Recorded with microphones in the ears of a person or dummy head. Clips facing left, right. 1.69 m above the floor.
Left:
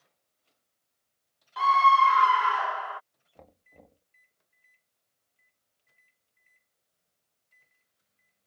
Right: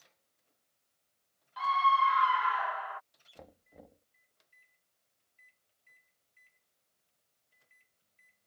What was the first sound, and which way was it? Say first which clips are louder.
A scream: left 7 dB; 60° left (ahead or behind).